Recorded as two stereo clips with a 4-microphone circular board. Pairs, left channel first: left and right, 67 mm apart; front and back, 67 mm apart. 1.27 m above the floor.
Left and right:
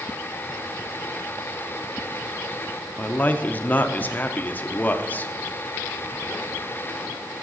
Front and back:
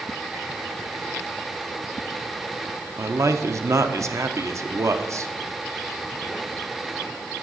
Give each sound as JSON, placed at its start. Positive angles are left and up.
{"t": 3.0, "sound": "a man speaking", "azimuth_deg": 150, "distance_m": 0.6}